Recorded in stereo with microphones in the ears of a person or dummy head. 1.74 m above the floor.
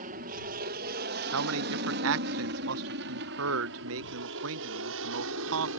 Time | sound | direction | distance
0.0 | an aircraft | 45° right (ahead or behind) | ?
1.3 | a man speaking | 65° right (ahead or behind) | ?